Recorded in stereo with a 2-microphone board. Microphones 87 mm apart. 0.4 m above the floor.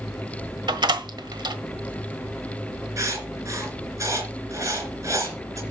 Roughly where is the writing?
Right.